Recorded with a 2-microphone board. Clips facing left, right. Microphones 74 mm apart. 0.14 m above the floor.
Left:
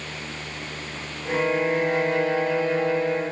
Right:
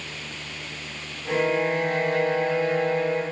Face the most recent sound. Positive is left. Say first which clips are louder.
# even
turn(degrees=20)  # may be behind; listen again after turning